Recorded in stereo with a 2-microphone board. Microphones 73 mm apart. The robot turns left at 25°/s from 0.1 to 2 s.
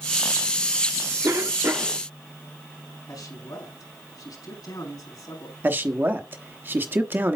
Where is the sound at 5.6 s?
30° right (ahead or behind), 1.0 m.